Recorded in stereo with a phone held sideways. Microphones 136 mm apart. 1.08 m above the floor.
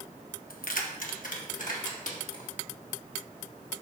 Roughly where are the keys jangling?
Left.